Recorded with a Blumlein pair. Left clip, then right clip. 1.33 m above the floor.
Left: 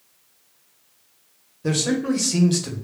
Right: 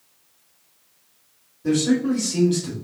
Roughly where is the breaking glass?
No breaking glass in this recording.